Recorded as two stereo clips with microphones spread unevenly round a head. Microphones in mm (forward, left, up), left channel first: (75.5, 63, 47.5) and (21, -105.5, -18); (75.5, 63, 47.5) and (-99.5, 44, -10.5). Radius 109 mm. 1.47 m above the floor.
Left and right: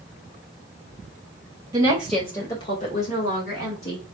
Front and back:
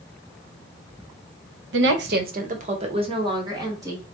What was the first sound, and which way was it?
A woman speaking, 175° left.